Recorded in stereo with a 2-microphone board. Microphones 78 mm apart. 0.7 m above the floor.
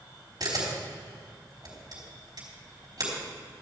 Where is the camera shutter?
60° right (ahead or behind), 4 m.